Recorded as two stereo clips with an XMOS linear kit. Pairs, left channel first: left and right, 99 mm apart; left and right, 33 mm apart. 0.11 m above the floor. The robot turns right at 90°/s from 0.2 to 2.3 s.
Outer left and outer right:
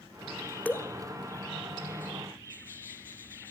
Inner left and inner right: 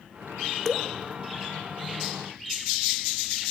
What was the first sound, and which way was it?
Dripping, 15° left (ahead or behind).